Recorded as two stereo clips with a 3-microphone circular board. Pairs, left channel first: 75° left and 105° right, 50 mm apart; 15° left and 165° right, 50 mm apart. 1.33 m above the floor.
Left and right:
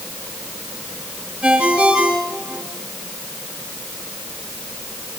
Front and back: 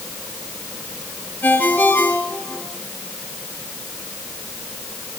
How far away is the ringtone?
About 9 m.